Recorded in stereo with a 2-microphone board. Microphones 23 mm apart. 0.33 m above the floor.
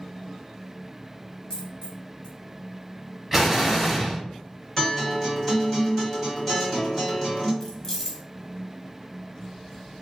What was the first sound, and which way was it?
A dropped coin, 50° left (ahead or behind).